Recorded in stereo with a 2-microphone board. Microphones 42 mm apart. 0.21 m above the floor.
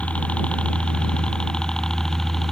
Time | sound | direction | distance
0.0 | a helicopter | 30° left (ahead or behind) | ?